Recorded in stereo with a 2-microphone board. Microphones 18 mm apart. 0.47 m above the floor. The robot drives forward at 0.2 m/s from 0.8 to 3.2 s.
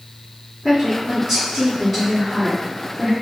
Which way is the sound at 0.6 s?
Centre (ahead or behind).